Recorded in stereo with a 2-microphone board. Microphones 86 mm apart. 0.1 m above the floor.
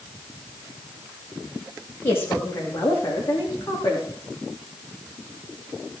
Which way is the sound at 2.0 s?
25° left (ahead or behind).